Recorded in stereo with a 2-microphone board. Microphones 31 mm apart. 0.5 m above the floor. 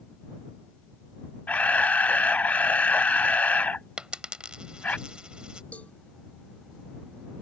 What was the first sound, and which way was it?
A camera shutter, 60° left (ahead or behind).